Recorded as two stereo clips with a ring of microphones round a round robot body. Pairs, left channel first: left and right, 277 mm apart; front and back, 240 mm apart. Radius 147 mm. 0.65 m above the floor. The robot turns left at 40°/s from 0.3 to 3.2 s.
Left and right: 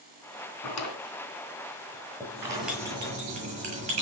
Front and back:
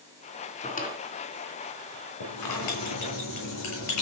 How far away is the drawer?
About 4 m.